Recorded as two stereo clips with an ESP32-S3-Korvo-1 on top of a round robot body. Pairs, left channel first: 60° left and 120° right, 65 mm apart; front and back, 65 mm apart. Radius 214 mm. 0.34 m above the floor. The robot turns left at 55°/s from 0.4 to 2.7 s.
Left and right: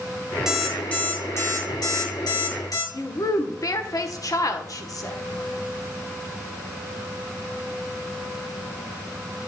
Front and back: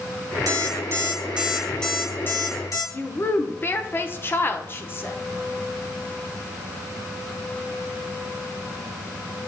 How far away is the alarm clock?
About 2.5 m.